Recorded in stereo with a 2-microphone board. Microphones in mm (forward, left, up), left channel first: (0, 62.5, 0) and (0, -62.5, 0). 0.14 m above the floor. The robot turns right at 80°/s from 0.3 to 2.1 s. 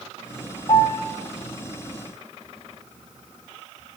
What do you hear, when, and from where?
0.7 s a piano: 30° left (ahead or behind), 7.5 m; by 1.0 s centre (ahead or behind), 7.5 m